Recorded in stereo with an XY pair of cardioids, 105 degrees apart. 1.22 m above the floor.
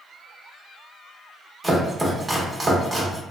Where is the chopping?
15° right, 1.0 m.